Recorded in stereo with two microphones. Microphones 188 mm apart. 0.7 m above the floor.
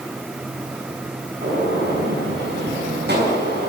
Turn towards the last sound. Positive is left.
turn(degrees=-65)  # may be behind; listen again after turning